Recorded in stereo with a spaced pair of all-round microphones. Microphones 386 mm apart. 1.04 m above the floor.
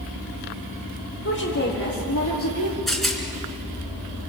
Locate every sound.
1.2 s a woman speaking: 40° left (ahead or behind), 4 m; by 2.8 s 65° left (ahead or behind), 2.0 m
2.9 s a rattle: centre (ahead or behind), 3.5 m